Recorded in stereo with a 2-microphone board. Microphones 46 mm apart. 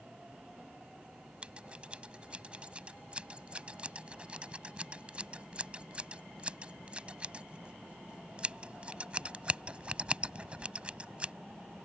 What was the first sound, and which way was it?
Scissors, 25° right (ahead or behind).